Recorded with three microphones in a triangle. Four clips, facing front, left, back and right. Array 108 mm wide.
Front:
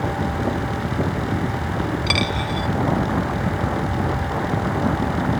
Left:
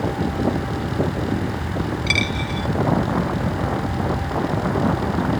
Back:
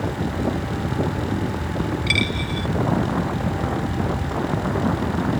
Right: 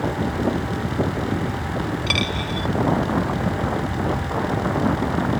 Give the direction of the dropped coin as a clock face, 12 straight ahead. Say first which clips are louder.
Left 1 dB, front 2 dB; 1 o'clock.